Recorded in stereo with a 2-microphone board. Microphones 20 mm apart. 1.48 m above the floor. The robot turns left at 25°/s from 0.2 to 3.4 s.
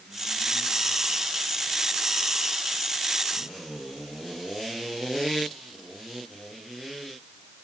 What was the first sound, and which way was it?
Only background noise.